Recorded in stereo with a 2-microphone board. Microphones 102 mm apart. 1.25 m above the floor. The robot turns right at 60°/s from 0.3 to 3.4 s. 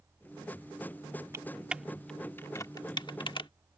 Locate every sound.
1.3 s typing on a keyboard: 30° right (ahead or behind); by 3.5 s 55° left (ahead or behind)